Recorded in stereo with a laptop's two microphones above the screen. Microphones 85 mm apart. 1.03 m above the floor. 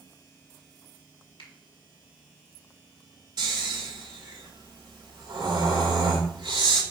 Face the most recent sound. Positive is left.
turn(degrees=-55)  # may be behind; listen again after turning